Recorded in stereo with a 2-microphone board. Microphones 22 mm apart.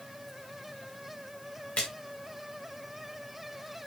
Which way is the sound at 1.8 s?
60° left (ahead or behind).